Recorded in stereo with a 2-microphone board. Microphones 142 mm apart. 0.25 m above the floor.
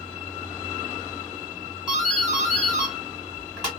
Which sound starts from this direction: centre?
A doorbell, at 1.9 s.